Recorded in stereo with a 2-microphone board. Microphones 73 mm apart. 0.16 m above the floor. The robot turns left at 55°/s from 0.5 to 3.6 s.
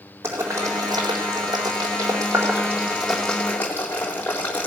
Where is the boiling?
35° right (ahead or behind), 4 m; by 4.7 s 25° left (ahead or behind), 4 m.